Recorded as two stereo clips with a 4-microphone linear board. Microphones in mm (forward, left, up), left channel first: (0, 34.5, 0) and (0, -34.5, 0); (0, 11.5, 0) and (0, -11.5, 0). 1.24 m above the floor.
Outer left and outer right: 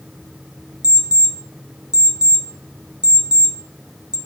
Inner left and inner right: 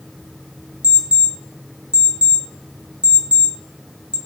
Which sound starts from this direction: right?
An alarm clock, at 0.8 s.